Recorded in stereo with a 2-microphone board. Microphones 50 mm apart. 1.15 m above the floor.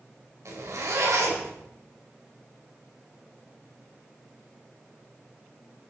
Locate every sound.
0.5 s a zipper: 85° right, 5 m